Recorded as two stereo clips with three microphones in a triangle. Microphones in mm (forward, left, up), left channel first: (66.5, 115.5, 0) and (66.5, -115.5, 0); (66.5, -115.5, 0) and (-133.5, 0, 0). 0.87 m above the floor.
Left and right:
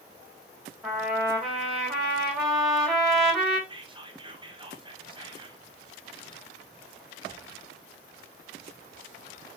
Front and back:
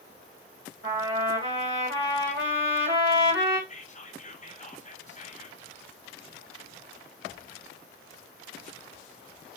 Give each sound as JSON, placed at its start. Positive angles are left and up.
{"t": 0.8, "sound": "a trumpet", "azimuth_deg": 180, "distance_m": 1.6}
{"t": 3.7, "sound": "whispering", "azimuth_deg": -40, "distance_m": 0.6}